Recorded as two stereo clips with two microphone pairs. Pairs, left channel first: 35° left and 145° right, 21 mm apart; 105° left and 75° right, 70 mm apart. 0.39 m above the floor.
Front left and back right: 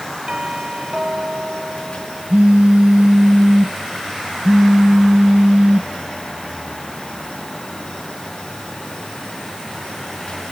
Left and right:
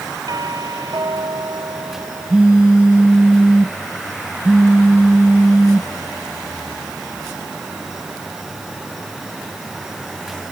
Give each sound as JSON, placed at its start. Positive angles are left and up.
{"t": 0.3, "sound": "a doorbell", "azimuth_deg": -95}
{"t": 2.3, "sound": "a phone buzzing", "azimuth_deg": -150}